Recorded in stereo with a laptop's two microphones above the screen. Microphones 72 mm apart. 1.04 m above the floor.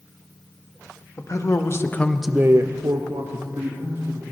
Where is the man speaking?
50° left (ahead or behind), 1.4 m; by 4.2 s 70° right (ahead or behind), 2 m.